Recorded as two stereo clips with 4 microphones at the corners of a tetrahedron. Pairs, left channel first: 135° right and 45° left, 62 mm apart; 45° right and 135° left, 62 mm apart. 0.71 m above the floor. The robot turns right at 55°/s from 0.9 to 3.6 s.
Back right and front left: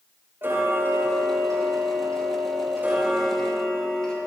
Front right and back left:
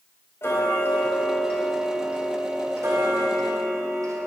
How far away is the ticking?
About 4 m.